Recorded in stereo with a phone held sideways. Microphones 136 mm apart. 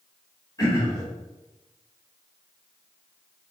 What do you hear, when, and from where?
0.6 s throat clearing: 30° left (ahead or behind), 1.7 m